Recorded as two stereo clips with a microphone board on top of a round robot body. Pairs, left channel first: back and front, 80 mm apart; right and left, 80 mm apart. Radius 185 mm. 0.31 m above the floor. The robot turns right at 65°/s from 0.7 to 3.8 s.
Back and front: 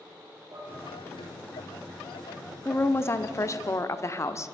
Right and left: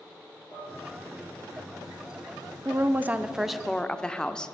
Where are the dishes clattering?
35° right, 8.5 m; by 0.8 s 25° right, 8.5 m.